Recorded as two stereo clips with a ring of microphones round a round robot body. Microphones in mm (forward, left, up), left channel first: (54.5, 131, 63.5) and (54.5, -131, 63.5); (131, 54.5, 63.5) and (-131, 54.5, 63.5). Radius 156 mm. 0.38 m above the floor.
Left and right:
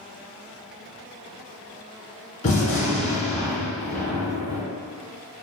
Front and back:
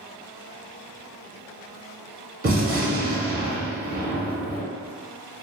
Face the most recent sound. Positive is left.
turn(degrees=140)